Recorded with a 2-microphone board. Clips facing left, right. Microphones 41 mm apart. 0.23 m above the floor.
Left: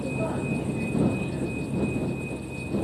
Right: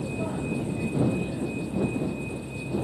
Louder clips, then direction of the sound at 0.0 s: Left 2 dB; 15° left (ahead or behind).